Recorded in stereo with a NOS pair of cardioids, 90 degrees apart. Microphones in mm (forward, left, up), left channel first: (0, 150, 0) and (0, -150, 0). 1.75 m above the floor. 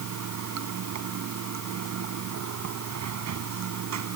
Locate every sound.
0.0 s running water: 65° right